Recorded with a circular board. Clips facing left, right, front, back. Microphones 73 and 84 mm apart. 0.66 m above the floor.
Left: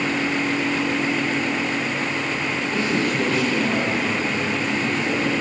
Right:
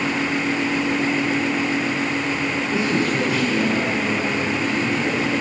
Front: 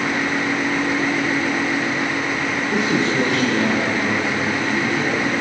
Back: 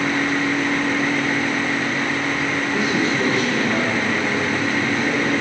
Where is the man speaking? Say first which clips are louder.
Right 1 dB, front 2 dB; 20° right, 9 m; by 5.3 s 5° right, 7 m.